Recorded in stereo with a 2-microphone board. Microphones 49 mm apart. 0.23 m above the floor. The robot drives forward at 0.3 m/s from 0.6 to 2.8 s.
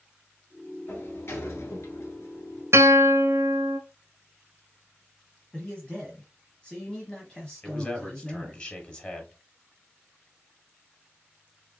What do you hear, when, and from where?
0.9 s a sliding door: 55° left (ahead or behind), 1.0 m; by 2.6 s 80° left, 0.8 m
2.7 s a guitar: 70° right (ahead or behind), 0.7 m; by 3.8 s 65° right (ahead or behind), 0.7 m
5.5 s a man speaking: 20° left (ahead or behind), 1.3 m
7.6 s a man speaking: 25° left (ahead or behind), 1.1 m